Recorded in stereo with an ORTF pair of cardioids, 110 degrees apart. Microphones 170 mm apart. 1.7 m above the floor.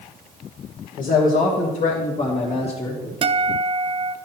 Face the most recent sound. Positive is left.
turn(degrees=-30)